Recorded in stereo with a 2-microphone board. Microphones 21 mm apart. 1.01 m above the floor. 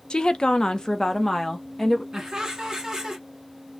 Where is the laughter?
35° right (ahead or behind), 1.5 m.